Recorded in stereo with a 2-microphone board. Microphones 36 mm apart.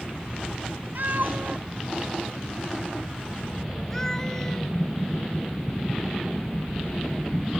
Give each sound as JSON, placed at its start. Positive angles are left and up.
{"t": 0.9, "sound": "a cat meowing", "side_deg": -70}